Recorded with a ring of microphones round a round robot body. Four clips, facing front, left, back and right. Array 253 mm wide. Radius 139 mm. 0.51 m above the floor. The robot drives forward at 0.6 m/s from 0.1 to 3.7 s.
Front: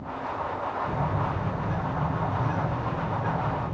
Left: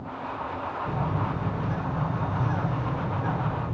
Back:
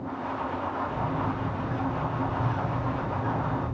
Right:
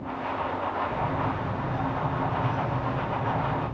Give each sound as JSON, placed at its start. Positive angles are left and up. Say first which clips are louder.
{"t": 0.9, "sound": "a bird", "louder": "right 1 dB, front 1 dB", "azimuth_deg": 65, "distance_m": 9.0}